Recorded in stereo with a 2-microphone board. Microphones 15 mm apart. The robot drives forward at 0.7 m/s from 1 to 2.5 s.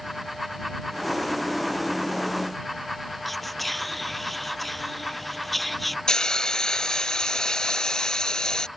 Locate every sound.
3.2 s whispering: 10° left (ahead or behind)
6.1 s a hiss: 45° left (ahead or behind)